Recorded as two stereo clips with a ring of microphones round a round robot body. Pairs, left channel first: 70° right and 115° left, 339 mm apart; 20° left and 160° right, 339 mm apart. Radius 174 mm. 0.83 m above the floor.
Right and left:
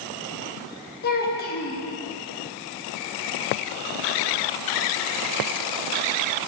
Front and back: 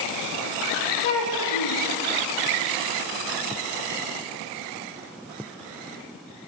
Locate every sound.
1.0 s a child speaking: 5° right, 0.8 m